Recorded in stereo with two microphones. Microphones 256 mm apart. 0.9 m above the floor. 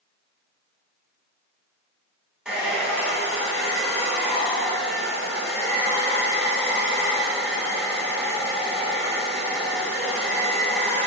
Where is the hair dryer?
5° right (ahead or behind), 2 m.